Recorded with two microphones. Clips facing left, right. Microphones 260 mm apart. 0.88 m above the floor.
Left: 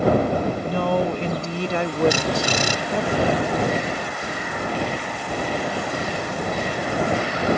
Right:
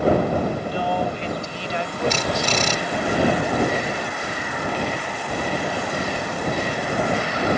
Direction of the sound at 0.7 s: 55° left (ahead or behind).